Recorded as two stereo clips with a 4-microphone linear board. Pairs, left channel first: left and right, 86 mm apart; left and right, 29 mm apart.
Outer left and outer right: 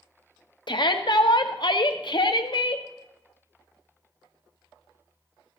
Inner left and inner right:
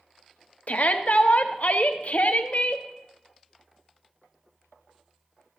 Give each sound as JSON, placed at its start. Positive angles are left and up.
{"t": 0.7, "sound": "a shout", "side_deg": 60, "distance_m": 0.7}